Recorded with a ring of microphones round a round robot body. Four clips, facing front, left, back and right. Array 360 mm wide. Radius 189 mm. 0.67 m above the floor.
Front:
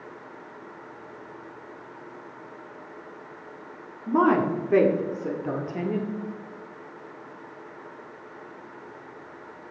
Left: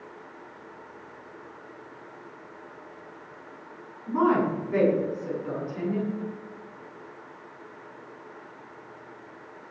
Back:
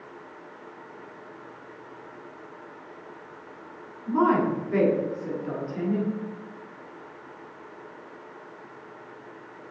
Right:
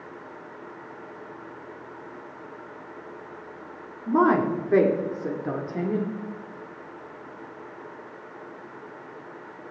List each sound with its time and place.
4.1 s a woman speaking: 55° right, 2 m